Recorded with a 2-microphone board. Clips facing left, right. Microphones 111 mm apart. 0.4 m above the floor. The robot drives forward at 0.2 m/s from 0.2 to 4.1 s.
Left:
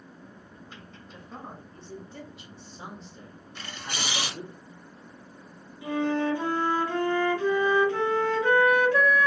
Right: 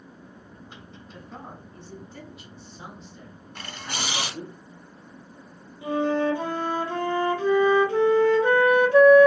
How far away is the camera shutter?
About 0.7 m.